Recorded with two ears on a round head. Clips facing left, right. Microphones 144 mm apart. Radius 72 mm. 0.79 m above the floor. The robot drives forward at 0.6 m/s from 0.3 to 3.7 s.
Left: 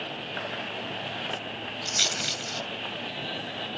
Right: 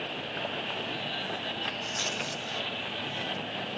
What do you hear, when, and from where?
1.9 s a rattle: 80° left